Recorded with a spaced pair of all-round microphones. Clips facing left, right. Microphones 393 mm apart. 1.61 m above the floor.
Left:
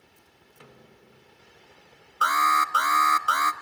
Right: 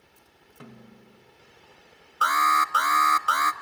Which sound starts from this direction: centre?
An alarm, at 2.2 s.